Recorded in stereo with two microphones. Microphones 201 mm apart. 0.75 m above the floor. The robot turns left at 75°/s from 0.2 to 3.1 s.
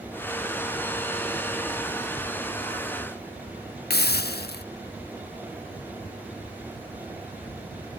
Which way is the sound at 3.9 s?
55° left (ahead or behind).